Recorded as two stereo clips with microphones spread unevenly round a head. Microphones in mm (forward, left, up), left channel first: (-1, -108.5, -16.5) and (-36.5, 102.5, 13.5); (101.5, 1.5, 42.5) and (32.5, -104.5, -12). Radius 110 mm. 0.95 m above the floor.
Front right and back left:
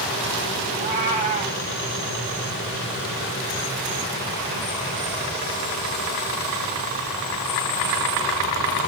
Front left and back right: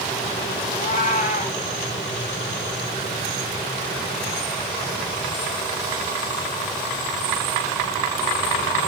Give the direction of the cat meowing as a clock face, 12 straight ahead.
11 o'clock.